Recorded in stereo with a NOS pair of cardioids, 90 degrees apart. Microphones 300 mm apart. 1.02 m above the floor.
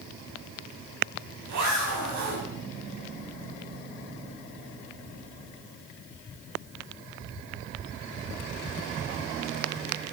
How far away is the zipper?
About 8 m.